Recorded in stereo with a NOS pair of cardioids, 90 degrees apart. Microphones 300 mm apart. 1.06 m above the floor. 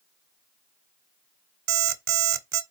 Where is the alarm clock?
65° right, 1.2 m.